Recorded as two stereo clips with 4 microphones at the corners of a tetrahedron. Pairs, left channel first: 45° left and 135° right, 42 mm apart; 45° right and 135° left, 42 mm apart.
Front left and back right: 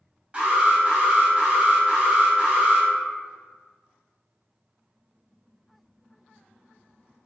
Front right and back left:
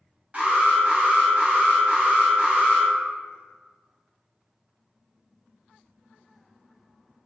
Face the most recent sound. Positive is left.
turn(degrees=180)